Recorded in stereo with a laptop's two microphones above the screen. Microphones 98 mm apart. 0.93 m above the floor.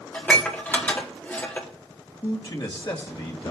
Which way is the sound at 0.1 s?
20° left (ahead or behind).